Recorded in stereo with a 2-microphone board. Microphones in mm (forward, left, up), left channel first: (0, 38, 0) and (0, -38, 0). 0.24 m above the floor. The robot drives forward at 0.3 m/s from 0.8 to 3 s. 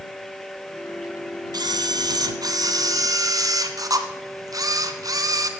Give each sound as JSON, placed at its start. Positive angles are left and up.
{"t": 1.5, "sound": "a camera shutter", "side_deg": -60, "distance_m": 1.2}